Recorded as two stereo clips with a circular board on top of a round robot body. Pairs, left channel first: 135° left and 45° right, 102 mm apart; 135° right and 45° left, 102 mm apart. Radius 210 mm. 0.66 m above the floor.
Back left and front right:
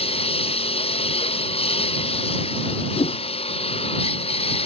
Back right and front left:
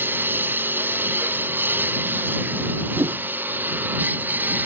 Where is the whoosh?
105° left.